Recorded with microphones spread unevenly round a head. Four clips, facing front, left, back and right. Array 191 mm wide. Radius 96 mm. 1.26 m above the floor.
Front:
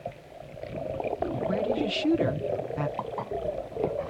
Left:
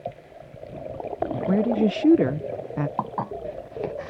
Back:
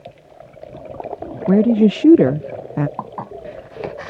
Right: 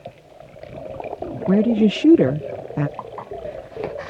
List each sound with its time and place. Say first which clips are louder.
1.5 s a woman speaking: right 6 dB, back 17 dB; 160° right
3.0 s dishes clattering: left 4 dB, back 4 dB; 125° left